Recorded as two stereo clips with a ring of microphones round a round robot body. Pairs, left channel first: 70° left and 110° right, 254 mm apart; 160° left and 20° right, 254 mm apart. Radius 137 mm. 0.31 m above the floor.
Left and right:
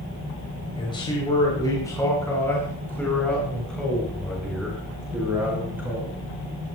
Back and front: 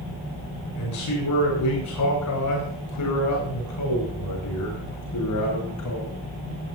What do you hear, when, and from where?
0.8 s a man speaking: 140° left, 7.5 m; by 6.2 s 165° left, 9 m